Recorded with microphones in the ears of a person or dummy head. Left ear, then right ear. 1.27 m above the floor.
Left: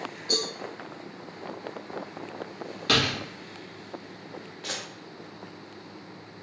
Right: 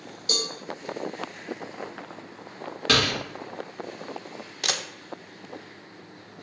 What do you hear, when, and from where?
0.3 s a cowbell: 45° right (ahead or behind), 1.5 m
2.9 s a door slam: 10° right (ahead or behind), 1.2 m
4.6 s a camera shutter: 70° right (ahead or behind), 0.6 m